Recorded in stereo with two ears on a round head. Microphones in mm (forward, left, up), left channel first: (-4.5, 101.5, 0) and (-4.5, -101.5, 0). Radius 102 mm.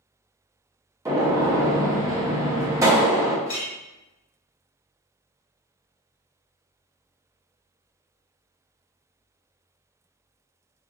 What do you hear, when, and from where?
1.1 s a gunshot: 15° right (ahead or behind), 0.6 m
3.5 s a clink: 55° left (ahead or behind), 1.4 m